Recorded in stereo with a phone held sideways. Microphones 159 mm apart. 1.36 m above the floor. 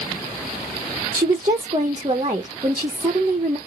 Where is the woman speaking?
30° right (ahead or behind), 1.0 m.